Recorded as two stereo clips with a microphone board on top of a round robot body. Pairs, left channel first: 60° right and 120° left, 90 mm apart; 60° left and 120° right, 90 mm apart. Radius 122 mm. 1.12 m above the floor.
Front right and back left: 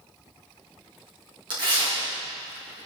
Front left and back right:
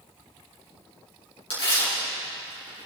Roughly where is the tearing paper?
Left.